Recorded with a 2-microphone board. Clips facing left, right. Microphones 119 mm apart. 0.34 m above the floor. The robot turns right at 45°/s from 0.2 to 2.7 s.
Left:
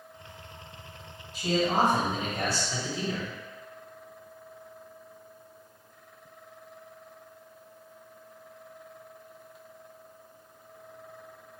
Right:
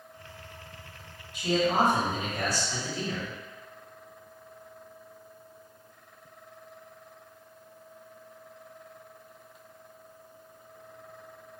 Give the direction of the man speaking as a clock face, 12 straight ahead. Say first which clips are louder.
Even; 9 o'clock.